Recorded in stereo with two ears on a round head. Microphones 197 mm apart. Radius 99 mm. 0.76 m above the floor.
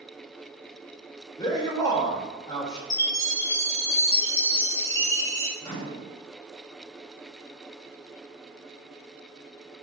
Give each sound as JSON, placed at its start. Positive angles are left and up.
{"t": 1.4, "sound": "a man speaking", "side_deg": 15, "distance_m": 1.1}
{"t": 2.9, "sound": "a chime", "side_deg": 15, "distance_m": 1.1}
{"t": 5.6, "sound": "a microwave", "side_deg": 15, "distance_m": 1.2}